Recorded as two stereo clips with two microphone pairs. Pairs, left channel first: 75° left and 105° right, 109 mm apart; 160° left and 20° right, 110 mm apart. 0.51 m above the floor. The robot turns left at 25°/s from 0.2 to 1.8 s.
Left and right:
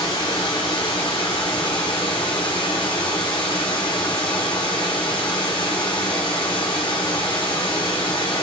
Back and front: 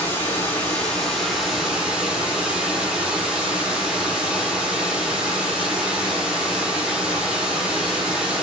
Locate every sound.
0.0 s running water: 95° left, 1.0 m; by 8.4 s 55° left, 1.0 m